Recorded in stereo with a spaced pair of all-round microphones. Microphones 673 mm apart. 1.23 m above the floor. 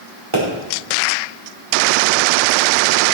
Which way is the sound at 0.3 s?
45° right (ahead or behind).